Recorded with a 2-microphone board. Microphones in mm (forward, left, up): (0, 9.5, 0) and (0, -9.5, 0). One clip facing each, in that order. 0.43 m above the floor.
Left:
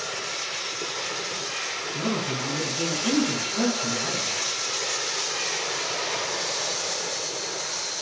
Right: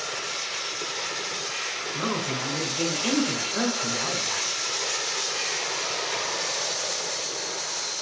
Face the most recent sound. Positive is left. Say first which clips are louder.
# left 1 dB
turn(degrees=-55)  # may be behind; listen again after turning